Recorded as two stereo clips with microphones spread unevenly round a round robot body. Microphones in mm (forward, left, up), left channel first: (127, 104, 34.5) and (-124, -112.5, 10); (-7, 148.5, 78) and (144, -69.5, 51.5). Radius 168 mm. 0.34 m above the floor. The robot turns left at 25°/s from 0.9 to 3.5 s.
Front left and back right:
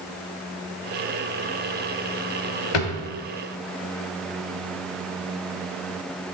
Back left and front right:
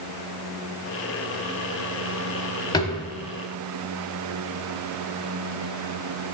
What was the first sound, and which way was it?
A drawer, 45° left.